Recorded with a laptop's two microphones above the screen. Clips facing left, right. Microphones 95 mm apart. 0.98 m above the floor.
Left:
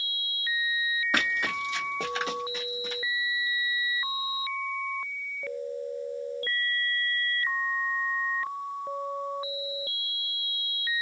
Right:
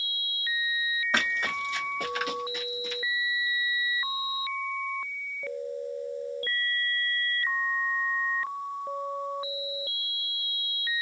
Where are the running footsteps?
10° left (ahead or behind), 2.0 m; by 3.0 s 45° left (ahead or behind), 1.7 m.